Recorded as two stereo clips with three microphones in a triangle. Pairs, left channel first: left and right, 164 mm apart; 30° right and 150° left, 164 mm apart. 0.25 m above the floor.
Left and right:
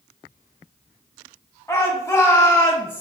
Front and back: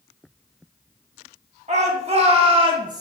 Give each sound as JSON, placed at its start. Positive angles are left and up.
{"t": 1.7, "sound": "a shout", "azimuth_deg": 155, "distance_m": 1.9}